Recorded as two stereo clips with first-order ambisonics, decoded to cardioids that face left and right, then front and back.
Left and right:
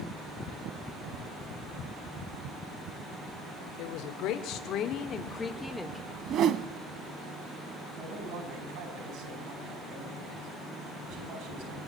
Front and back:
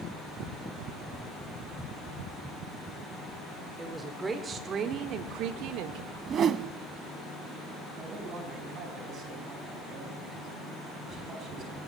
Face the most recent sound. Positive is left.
turn(degrees=-120)